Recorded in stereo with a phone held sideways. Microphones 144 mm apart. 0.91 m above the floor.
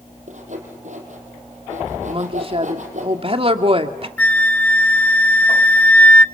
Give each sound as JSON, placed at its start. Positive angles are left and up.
{"t": 0.3, "sound": "sawing", "side_deg": -60, "distance_m": 5.0}
{"t": 2.1, "sound": "a woman speaking", "side_deg": -40, "distance_m": 1.8}
{"t": 4.2, "sound": "a flute", "side_deg": 10, "distance_m": 0.5}